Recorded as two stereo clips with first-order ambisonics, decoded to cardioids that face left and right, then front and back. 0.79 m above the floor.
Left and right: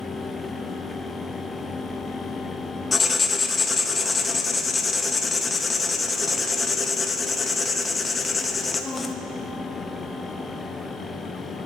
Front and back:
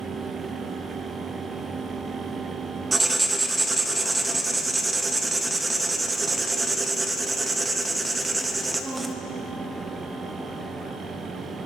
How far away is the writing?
About 0.7 m.